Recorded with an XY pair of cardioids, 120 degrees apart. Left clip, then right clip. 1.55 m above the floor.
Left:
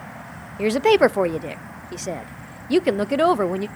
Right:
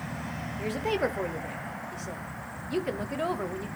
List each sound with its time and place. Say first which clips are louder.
0.6 s a woman speaking: left 13 dB; 65° left, 0.6 m